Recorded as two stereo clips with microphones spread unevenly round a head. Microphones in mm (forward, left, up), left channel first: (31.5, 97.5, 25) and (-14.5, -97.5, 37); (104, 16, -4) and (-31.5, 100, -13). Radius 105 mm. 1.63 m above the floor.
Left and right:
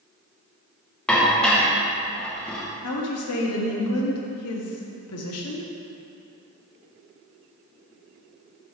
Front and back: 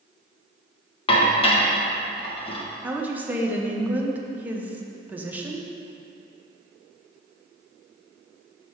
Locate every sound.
1.1 s dishes clattering: 10° right, 0.8 m
2.8 s a woman speaking: 65° left, 0.9 m